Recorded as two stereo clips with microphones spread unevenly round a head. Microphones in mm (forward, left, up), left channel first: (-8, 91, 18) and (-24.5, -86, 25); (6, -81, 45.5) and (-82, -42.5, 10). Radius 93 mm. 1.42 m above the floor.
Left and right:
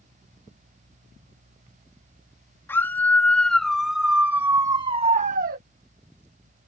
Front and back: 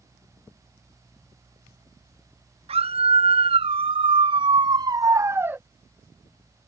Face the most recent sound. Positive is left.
turn(degrees=-130)